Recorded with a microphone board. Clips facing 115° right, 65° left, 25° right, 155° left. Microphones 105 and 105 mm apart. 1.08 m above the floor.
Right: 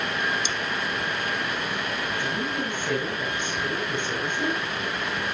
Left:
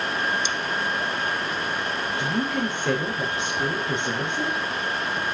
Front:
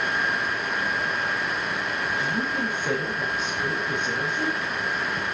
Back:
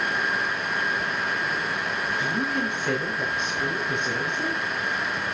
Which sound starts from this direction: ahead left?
A woman speaking, at 2.2 s.